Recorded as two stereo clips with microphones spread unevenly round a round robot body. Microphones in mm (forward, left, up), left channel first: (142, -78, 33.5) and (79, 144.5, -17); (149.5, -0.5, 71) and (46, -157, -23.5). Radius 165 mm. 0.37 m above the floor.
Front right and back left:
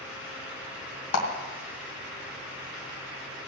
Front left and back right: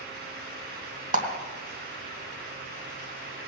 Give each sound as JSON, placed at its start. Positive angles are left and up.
{"t": 1.1, "sound": "a clap", "azimuth_deg": -110, "distance_m": 2.5}